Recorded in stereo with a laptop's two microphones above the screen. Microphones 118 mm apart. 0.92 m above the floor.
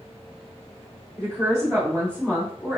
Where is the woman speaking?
5° left (ahead or behind), 1.9 m; by 2.8 s 25° left (ahead or behind), 2.5 m.